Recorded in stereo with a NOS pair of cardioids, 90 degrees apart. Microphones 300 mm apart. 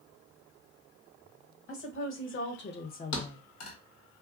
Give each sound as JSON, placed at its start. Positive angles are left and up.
{"t": 1.7, "sound": "a woman speaking", "azimuth_deg": 50, "distance_m": 1.3}
{"t": 3.1, "sound": "a thud", "azimuth_deg": 60, "distance_m": 1.2}